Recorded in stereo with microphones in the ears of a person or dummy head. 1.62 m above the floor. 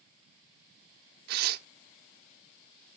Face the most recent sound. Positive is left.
turn(degrees=-60)  # may be behind; listen again after turning